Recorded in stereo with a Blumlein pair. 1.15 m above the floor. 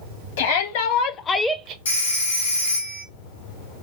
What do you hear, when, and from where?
0.4 s a shout: 60° left, 1.2 m; by 1.8 s 35° right, 0.5 m
1.9 s a phone ringing: 65° left, 2 m